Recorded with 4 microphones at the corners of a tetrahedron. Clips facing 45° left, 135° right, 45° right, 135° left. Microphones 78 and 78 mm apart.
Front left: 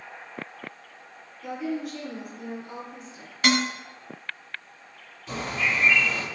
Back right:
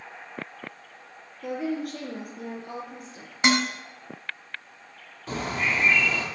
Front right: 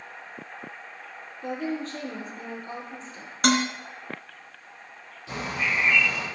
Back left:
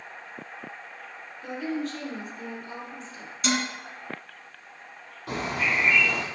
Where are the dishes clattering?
70° right, 2 m.